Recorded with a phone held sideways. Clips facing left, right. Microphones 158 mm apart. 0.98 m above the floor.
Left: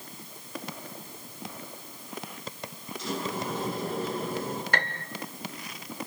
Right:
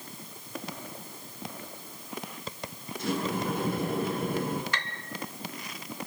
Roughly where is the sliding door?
Right.